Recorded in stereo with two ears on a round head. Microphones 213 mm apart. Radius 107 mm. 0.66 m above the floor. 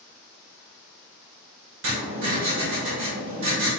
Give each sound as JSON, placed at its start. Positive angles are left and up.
{"t": 1.8, "sound": "writing", "side_deg": -55, "distance_m": 2.0}